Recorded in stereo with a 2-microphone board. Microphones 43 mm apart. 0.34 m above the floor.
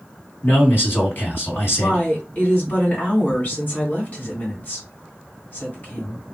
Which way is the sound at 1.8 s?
40° left (ahead or behind).